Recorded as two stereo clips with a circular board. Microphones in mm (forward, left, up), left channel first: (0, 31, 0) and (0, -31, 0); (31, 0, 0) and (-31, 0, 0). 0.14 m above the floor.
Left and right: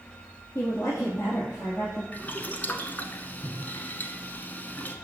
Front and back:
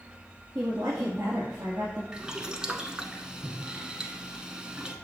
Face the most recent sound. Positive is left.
turn(degrees=115)